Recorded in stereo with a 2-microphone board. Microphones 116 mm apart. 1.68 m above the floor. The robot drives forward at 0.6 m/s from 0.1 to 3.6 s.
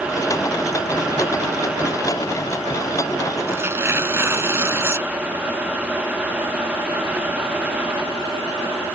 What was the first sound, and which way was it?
Tearing paper, 20° right (ahead or behind).